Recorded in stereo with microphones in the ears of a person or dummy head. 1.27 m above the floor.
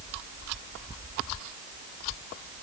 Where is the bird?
No bird in this recording.